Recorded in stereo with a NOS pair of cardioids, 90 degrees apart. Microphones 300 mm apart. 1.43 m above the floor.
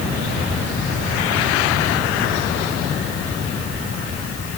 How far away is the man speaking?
I don't hear a man speaking.